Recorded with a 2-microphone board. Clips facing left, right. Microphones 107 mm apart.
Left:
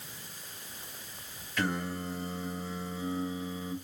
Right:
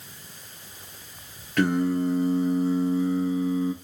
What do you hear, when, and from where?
1.6 s singing: 60° right (ahead or behind), 1.8 m